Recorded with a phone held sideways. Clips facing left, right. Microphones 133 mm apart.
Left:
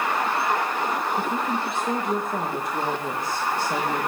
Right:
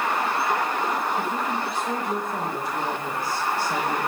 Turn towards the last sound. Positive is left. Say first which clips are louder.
# left 1 dB
turn(degrees=20)  # may be behind; listen again after turning